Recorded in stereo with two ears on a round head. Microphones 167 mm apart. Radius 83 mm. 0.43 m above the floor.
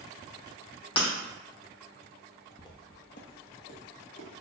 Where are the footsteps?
20° left (ahead or behind), 0.6 m; by 4.4 s 75° left (ahead or behind), 1.6 m.